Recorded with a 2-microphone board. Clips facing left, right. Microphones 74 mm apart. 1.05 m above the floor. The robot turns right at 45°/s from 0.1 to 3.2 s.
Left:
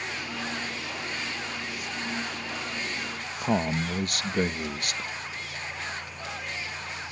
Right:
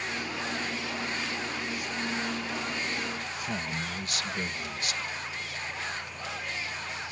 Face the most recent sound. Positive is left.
turn(degrees=50)  # may be behind; listen again after turning